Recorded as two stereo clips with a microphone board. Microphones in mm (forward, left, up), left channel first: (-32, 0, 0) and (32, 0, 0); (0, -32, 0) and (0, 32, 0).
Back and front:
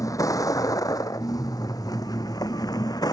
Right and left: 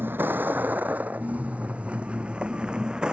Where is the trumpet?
I don't hear a trumpet.